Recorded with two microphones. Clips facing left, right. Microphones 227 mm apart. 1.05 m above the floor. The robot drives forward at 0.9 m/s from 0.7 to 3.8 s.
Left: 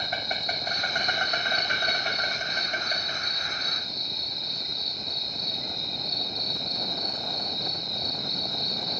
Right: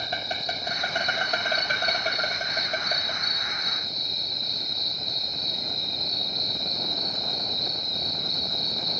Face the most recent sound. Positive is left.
turn(degrees=-45)  # may be behind; listen again after turning